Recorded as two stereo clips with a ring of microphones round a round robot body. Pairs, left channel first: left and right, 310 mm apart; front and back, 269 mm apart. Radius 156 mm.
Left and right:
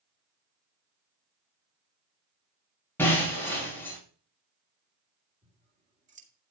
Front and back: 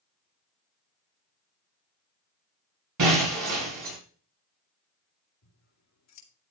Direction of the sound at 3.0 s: 175° left.